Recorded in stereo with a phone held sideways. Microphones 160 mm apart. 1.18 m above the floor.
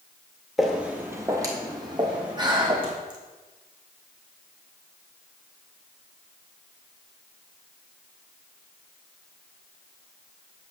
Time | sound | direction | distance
0.6 | footsteps | centre (ahead or behind) | 1.3 m
2.4 | breathing | 30° right (ahead or behind) | 1.3 m